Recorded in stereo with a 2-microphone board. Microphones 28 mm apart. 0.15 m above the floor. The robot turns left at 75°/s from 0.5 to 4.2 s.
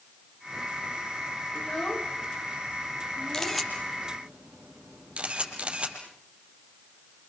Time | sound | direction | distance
1.6 | a child speaking | 40° left (ahead or behind) | 1.9 m
3.3 | a camera shutter | 20° left (ahead or behind) | 5 m